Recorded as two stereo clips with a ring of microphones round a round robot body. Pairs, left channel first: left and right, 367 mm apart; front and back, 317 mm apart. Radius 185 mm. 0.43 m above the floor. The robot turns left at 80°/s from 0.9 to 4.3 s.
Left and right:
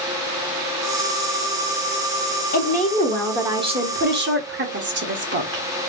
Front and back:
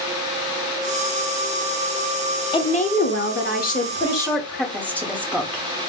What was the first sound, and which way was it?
A woman speaking, 60° left.